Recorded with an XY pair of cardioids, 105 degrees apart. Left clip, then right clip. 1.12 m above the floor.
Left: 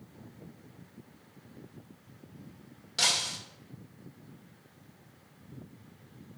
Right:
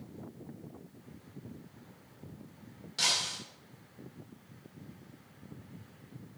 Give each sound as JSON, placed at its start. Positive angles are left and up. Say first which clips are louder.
{"t": 3.0, "sound": "breaking glass", "louder": "left 2 dB", "azimuth_deg": 35, "distance_m": 2.5}